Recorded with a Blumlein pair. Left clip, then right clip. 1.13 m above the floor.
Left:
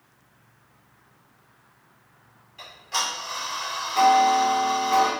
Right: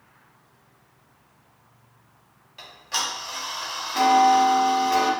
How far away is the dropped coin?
No dropped coin in this recording.